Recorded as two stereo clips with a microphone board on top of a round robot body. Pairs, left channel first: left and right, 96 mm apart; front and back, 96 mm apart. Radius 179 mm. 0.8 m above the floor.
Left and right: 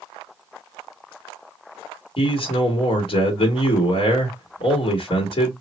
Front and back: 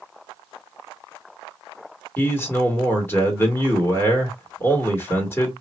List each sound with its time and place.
2.2 s a man speaking: 65° left, 1.4 m